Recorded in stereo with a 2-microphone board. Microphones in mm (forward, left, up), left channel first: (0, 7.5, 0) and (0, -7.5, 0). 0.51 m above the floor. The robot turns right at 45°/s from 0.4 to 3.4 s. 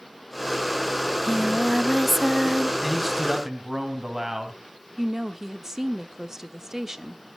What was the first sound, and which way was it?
Singing, 140° left.